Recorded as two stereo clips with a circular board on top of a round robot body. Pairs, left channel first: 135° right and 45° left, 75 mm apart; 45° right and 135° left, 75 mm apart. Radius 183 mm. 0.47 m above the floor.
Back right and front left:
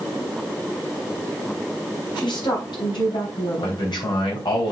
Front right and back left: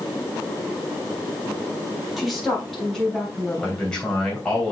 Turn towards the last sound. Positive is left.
turn(degrees=-125)